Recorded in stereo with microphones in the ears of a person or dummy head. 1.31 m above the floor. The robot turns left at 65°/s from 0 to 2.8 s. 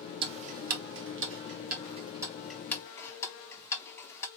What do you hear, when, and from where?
0.2 s ticking: 30° right (ahead or behind), 0.6 m; by 4.3 s 20° left (ahead or behind), 0.6 m